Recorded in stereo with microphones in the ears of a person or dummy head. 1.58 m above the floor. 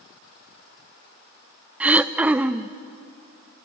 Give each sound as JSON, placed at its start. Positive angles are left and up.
{"t": 1.8, "sound": "throat clearing", "side_deg": -10, "distance_m": 0.5}